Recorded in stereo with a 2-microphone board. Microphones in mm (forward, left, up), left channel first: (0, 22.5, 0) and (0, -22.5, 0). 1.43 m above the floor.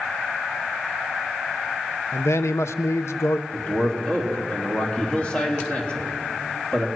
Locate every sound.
2.1 s a man speaking: 90° left, 0.8 m
3.5 s a man speaking: 20° left (ahead or behind), 3 m